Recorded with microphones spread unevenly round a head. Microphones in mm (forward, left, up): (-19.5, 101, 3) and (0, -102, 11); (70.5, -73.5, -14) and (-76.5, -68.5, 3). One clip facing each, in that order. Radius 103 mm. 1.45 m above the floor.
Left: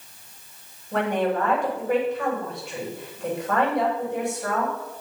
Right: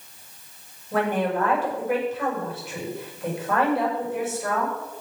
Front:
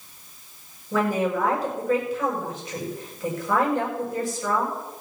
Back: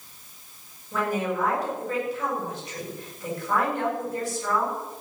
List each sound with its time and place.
0.9 s a woman speaking: straight ahead, 8 m